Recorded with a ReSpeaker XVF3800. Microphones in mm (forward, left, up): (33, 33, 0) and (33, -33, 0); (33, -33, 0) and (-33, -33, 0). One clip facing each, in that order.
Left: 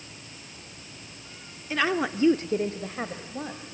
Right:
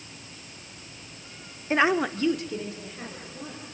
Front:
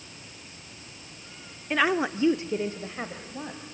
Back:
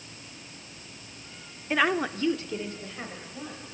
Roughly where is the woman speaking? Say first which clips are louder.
Right 3 dB, front 1 dB; right.